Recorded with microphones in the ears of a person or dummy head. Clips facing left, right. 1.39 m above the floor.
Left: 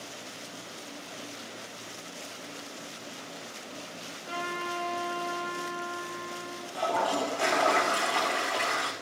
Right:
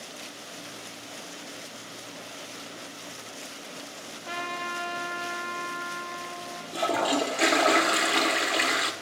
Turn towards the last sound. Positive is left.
turn(degrees=-25)  # may be behind; listen again after turning